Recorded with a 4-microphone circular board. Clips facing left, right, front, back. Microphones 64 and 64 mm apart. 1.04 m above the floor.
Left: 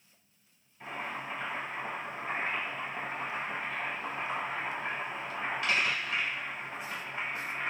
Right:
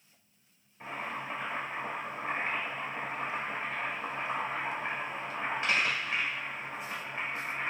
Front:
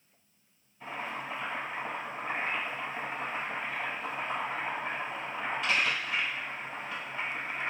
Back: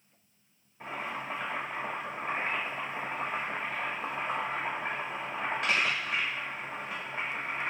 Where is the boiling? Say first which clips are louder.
Even, back 1 dB; 150° right, 1.4 m.